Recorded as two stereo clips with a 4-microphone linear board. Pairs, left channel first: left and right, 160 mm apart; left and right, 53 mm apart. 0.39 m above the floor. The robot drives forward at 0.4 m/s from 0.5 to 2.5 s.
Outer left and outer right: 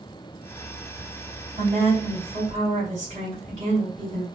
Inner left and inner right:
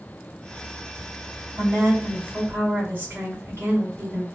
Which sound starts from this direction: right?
A woman speaking, at 1.6 s.